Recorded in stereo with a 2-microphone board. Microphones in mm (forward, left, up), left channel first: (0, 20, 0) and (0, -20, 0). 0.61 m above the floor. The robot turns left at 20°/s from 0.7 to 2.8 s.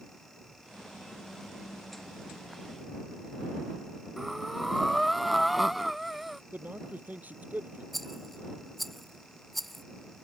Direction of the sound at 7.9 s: Centre (ahead or behind).